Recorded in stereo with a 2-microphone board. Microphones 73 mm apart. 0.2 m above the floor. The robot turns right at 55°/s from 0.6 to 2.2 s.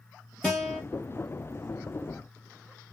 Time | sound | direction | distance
0.4 | a guitar | 10° left (ahead or behind) | 2.0 m